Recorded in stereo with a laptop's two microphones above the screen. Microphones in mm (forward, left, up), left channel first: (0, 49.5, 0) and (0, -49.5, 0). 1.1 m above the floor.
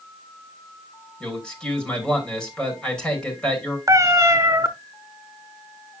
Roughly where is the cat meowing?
Right.